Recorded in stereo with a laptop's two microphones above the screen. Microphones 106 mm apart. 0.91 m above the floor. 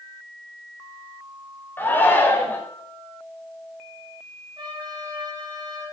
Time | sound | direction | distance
1.8 | a shout | 20° left (ahead or behind) | 3.5 m
4.6 | a trumpet | 45° right (ahead or behind) | 3.5 m